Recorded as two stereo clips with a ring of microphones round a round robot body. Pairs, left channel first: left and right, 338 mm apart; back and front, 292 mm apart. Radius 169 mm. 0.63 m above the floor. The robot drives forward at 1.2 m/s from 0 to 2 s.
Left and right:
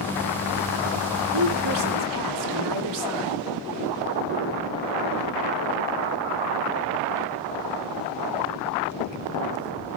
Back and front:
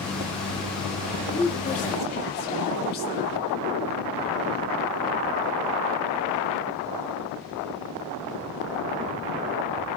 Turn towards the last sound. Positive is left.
turn(degrees=-120)